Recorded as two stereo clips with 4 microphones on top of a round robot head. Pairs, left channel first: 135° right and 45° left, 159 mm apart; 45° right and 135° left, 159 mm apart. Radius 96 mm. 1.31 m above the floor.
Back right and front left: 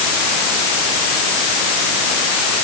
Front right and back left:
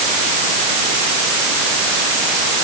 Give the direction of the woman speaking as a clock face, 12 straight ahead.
I don't hear a woman speaking.